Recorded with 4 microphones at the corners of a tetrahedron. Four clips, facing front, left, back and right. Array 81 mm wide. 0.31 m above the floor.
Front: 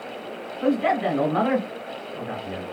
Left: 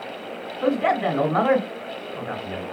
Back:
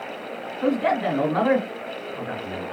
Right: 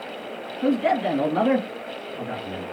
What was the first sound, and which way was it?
A man speaking, 105° left.